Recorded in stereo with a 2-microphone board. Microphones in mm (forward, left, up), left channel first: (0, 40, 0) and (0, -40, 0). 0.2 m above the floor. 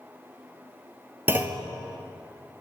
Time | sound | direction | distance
1.3 | a clunk | 25° right (ahead or behind) | 0.5 m